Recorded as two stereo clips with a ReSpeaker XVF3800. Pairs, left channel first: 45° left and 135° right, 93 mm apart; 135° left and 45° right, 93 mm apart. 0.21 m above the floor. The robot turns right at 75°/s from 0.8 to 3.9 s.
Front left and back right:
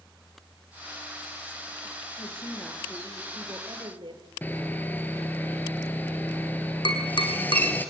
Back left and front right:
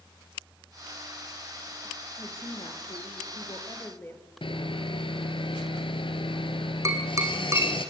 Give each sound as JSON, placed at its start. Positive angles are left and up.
{"t": 2.2, "sound": "a woman speaking", "azimuth_deg": 75, "distance_m": 4.5}
{"t": 4.4, "sound": "sawing", "azimuth_deg": 115, "distance_m": 2.0}
{"t": 6.8, "sound": "tapping", "azimuth_deg": 15, "distance_m": 3.5}